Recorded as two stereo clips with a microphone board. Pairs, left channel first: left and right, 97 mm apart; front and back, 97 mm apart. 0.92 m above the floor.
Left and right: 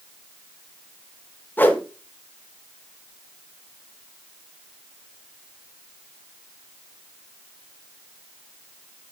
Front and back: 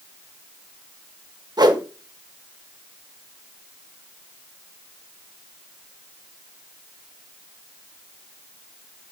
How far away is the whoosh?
About 1.3 m.